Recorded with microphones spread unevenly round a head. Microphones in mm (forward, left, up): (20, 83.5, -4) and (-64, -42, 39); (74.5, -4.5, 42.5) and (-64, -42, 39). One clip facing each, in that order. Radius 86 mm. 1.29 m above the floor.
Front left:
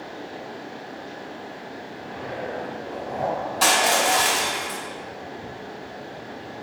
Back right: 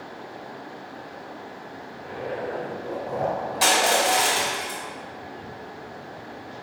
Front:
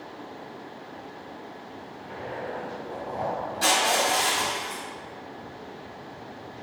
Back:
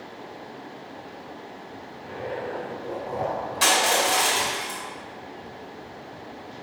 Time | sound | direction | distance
2.0 | a zipper | 120° right | 2.5 m
3.6 | crushing | 165° left | 1.9 m